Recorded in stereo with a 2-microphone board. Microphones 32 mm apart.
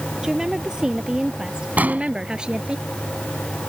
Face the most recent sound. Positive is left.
turn(degrees=-55)  # may be behind; listen again after turning